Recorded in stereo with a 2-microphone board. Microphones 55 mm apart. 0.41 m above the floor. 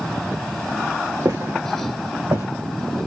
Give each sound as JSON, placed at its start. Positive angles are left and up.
{"t": 1.2, "sound": "footsteps", "side_deg": -75, "distance_m": 2.0}